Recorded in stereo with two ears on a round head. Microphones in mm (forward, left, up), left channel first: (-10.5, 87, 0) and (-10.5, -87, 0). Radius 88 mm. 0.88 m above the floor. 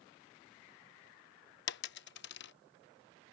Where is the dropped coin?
60° left (ahead or behind).